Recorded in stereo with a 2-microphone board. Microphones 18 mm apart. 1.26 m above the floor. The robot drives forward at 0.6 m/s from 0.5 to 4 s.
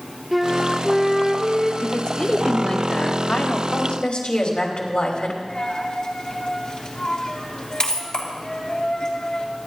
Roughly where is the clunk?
I don't hear a clunk.